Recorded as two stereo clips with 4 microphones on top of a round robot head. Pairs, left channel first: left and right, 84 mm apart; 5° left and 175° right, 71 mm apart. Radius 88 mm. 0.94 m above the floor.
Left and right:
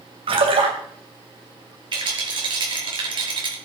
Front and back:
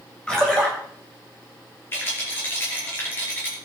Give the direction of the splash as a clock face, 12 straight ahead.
2 o'clock.